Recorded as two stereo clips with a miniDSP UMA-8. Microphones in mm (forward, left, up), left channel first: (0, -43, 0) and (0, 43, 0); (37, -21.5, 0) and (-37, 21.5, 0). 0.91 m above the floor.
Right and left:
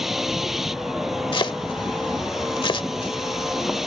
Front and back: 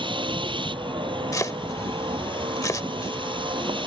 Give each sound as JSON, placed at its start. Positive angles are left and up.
{"t": 0.0, "sound": "a vehicle", "azimuth_deg": 175}
{"t": 1.3, "sound": "chopping", "azimuth_deg": -80}